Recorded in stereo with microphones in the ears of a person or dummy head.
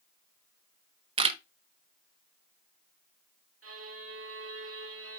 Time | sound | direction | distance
1.2 | a camera shutter | 25° right (ahead or behind) | 0.6 m
3.6 | a violin | 80° right | 1.7 m